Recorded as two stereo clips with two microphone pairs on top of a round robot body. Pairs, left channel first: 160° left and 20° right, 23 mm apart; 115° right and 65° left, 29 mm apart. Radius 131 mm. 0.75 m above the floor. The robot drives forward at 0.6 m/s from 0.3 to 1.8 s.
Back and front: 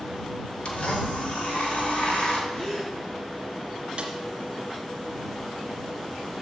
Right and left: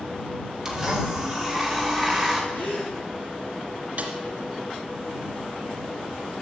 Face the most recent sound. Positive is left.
turn(degrees=30)